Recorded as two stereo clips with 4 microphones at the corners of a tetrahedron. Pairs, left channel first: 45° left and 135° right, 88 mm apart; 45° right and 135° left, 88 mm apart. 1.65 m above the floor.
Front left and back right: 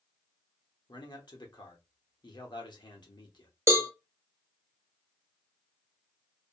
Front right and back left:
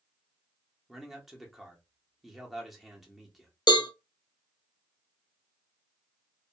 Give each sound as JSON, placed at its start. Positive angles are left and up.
{"t": 0.9, "sound": "a man speaking", "azimuth_deg": 50, "distance_m": 1.0}
{"t": 3.7, "sound": "a cowbell", "azimuth_deg": -80, "distance_m": 0.7}